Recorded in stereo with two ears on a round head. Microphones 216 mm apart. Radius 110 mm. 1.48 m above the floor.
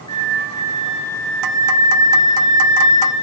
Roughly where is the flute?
Left.